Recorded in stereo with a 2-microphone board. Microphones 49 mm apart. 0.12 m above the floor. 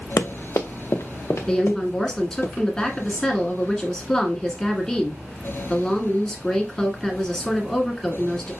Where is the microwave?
I don't hear a microwave.